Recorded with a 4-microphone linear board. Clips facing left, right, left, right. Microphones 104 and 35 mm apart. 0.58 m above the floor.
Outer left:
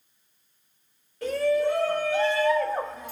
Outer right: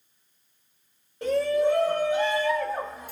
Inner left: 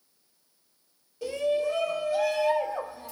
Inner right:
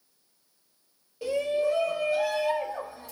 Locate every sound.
1.2 s a shout: 20° right (ahead or behind), 1.4 m; by 3.1 s 10° right (ahead or behind), 1.4 m